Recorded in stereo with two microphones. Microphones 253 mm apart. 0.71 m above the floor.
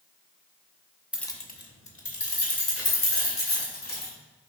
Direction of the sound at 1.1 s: 5° right (ahead or behind).